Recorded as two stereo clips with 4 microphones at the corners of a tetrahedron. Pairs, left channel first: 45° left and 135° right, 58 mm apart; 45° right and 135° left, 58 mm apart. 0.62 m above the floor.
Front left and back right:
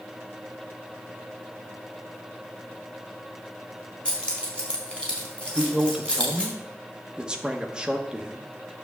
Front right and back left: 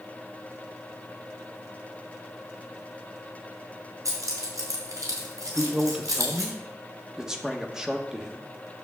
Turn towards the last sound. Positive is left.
turn(degrees=-170)